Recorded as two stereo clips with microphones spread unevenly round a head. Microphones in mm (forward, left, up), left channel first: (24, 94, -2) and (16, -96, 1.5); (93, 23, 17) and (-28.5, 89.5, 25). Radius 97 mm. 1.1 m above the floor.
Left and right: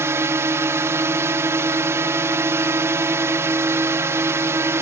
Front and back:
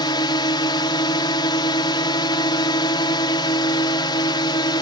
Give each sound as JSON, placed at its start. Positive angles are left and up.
{"t": 0.0, "sound": "a drone", "azimuth_deg": -30}